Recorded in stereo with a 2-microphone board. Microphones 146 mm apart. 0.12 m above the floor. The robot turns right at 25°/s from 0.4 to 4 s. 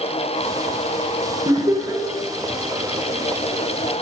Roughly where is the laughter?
Right.